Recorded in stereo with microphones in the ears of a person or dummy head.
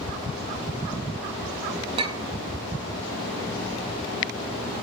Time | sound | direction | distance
2.0 | a clink | 35° right (ahead or behind) | 0.9 m